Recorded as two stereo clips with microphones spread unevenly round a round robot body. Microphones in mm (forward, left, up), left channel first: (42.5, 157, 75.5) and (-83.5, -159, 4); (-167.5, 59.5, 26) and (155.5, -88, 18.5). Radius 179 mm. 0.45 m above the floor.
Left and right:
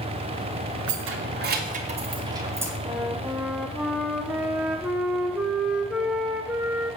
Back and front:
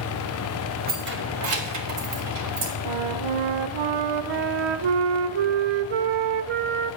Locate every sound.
0.9 s keys jangling: 85° right, 1.3 m; by 2.7 s 35° right, 1.7 m
2.9 s a flute: 30° right, 0.6 m